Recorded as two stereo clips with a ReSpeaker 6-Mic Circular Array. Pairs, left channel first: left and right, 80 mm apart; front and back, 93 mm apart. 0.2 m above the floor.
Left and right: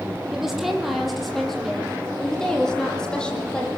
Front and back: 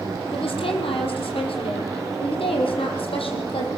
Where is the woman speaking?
5° right, 6 m; by 3.7 s 10° left, 7.5 m.